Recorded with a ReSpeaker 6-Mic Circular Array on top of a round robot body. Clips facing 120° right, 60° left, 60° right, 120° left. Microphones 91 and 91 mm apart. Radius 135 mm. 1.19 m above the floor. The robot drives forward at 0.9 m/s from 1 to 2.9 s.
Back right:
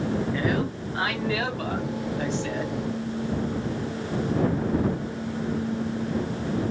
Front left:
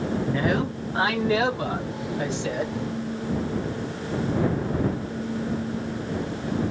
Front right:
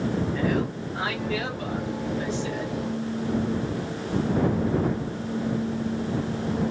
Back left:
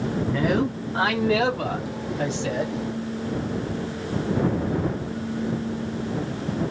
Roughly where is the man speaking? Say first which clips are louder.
Front left 2 dB, back left 3 dB; behind left.